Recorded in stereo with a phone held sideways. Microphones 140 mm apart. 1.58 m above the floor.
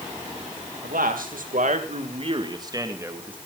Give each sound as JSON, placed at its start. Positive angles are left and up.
{"t": 0.8, "sound": "a man speaking", "side_deg": -85, "distance_m": 2.5}